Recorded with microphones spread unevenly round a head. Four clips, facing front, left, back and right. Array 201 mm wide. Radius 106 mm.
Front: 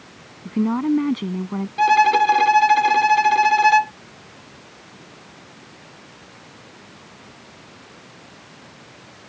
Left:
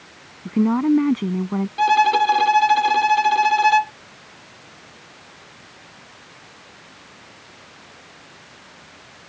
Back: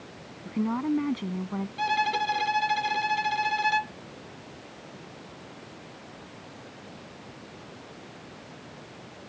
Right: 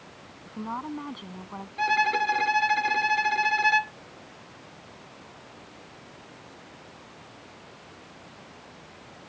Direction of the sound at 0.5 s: 60° left.